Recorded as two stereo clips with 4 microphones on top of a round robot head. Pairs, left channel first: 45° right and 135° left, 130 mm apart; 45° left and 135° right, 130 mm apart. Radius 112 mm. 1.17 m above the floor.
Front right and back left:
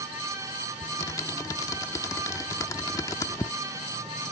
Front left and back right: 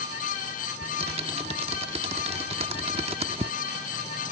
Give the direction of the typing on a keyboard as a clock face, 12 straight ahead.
3 o'clock.